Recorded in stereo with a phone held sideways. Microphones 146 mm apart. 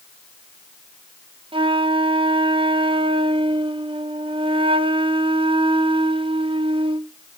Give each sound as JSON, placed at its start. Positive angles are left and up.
{"t": 1.5, "sound": "a flute", "side_deg": -35, "distance_m": 0.5}